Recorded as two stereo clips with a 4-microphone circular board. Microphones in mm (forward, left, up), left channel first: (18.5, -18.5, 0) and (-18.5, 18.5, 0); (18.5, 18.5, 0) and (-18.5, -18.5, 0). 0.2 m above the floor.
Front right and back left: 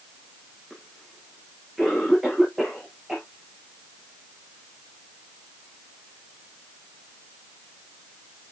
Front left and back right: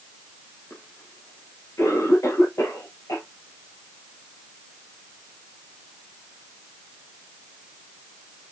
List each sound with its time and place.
0.7 s a cough: 50° left, 3.5 m